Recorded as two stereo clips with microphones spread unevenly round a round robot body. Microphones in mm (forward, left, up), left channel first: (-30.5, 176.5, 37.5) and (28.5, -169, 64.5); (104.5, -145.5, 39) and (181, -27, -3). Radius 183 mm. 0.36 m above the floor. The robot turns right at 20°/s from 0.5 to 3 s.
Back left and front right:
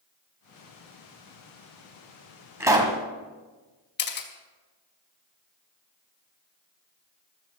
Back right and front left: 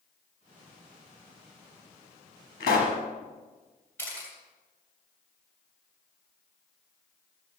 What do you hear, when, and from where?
2.6 s a pop: 165° right, 1.5 m; by 3.0 s 155° right, 1.5 m
4.0 s a camera shutter: 145° left, 2.5 m